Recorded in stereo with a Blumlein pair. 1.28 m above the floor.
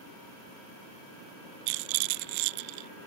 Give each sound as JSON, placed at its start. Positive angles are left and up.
{"t": 1.7, "sound": "a rattle", "azimuth_deg": -45}